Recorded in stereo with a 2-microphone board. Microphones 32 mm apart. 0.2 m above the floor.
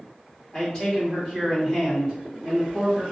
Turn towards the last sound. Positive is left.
turn(degrees=-10)  # may be behind; listen again after turning